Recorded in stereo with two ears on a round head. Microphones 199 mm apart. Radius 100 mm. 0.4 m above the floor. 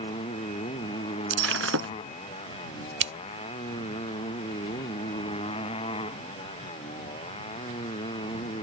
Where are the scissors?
55° right (ahead or behind).